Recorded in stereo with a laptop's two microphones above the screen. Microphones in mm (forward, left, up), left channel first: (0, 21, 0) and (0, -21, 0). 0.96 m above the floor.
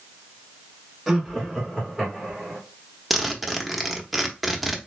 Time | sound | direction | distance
1.1 | laughter | 5° right (ahead or behind) | 0.9 m
3.1 | a zipper | centre (ahead or behind) | 0.9 m